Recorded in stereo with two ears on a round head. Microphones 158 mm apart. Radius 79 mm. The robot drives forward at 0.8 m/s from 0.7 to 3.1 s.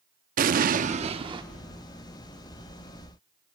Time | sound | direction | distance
0.4 | an explosion | 50° right (ahead or behind) | 0.6 m